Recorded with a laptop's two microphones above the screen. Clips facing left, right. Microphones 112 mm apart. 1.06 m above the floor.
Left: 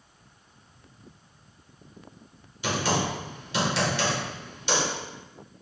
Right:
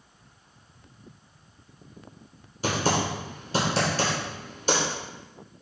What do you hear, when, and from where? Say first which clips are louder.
2.6 s typing on a keyboard: right 1 dB; 40° right (ahead or behind), 1.6 m